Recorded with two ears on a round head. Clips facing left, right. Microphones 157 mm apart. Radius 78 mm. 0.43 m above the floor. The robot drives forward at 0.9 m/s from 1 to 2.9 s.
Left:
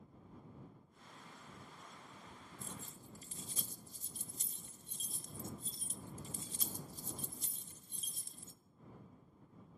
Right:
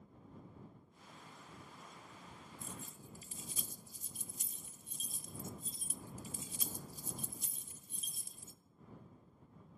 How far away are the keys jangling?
About 0.6 m.